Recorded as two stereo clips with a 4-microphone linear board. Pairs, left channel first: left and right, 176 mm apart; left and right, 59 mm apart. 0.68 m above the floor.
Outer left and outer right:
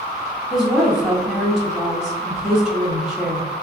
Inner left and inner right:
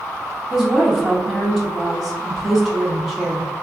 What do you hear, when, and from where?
0.5 s a woman speaking: 5° right (ahead or behind), 1.1 m